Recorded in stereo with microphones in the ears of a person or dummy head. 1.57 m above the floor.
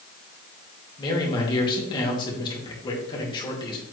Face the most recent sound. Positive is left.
turn(degrees=25)  # may be behind; listen again after turning